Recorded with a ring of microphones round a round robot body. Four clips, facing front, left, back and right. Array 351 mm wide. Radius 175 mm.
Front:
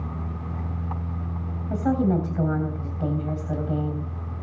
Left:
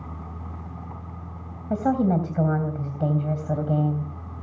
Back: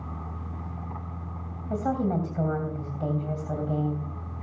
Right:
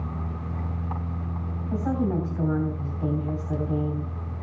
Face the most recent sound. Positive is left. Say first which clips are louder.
# left 4 dB, front 4 dB
turn(degrees=85)